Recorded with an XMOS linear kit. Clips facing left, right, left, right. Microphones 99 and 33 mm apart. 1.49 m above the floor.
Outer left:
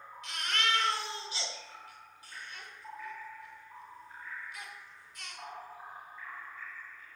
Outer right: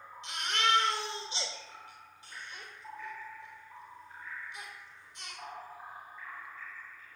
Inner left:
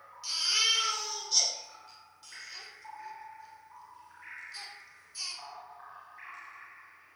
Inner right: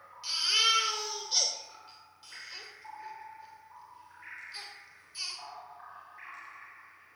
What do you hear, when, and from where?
0.2 s a baby crying: 25° right (ahead or behind), 4.5 m